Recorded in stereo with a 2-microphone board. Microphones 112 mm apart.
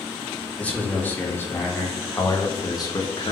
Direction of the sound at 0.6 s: 15° left (ahead or behind).